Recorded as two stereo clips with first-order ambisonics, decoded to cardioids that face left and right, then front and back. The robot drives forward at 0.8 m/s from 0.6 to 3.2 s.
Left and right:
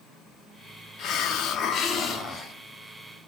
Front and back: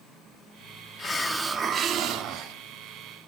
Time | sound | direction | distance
1.0 | a hiss | 60° left | 0.7 m